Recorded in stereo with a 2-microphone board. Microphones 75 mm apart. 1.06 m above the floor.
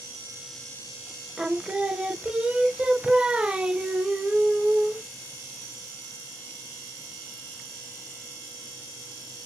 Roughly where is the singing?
Centre.